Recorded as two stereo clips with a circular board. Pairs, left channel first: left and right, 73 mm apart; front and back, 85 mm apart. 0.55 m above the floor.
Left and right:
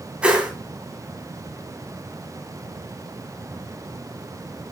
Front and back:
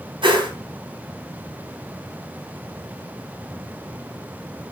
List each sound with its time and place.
0.2 s a whoosh: 165° right, 3 m